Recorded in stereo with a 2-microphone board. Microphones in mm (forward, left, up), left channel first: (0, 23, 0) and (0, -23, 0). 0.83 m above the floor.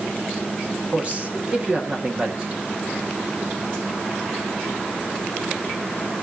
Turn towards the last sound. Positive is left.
turn(degrees=-30)  # may be behind; listen again after turning